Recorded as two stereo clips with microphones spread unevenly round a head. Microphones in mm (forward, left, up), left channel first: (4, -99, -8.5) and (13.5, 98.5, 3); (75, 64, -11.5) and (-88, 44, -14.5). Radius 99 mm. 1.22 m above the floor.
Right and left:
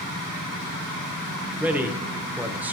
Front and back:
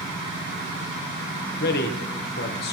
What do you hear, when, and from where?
1.6 s a man speaking: 5° left, 1.0 m